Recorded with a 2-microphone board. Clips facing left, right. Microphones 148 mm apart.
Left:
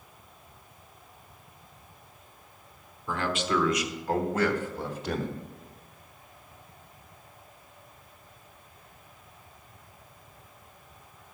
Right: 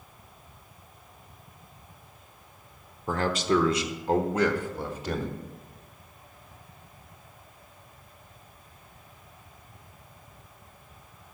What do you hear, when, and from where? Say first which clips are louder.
3.1 s a man speaking: right 4 dB; 45° right (ahead or behind), 1.0 m; by 5.4 s 5° right (ahead or behind), 1.5 m